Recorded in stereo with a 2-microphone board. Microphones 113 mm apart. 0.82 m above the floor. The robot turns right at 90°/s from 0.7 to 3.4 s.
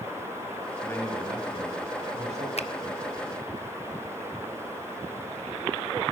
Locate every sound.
0.8 s a man speaking: 155° left, 5.5 m; by 2.5 s 60° right, 5.5 m
2.6 s a finger snap: 65° left (ahead or behind), 0.9 m; by 2.7 s 55° left (ahead or behind), 0.9 m